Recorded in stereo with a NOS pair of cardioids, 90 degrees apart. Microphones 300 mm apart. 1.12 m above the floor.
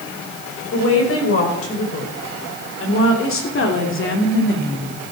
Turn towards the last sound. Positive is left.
turn(degrees=35)